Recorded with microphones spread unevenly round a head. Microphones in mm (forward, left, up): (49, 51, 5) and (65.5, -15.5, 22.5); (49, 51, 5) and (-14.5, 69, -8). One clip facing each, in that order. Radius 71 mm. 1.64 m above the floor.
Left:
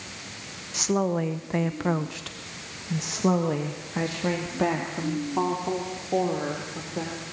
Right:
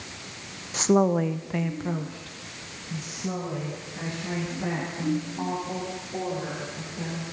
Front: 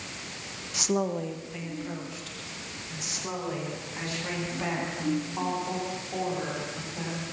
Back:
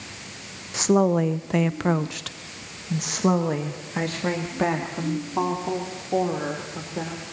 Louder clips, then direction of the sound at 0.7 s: Right 4 dB, back 9 dB; 125° right.